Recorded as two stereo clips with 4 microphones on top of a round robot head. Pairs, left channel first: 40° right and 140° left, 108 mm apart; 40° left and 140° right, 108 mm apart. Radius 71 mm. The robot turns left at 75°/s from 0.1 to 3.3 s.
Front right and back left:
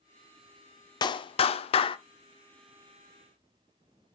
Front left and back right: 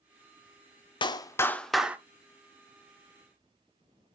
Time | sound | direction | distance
1.0 | a clap | 5° left | 0.9 m